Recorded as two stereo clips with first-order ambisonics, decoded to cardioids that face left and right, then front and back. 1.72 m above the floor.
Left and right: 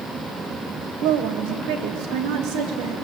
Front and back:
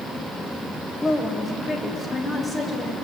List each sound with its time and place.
1.0 s a woman speaking: 75° right, 1.3 m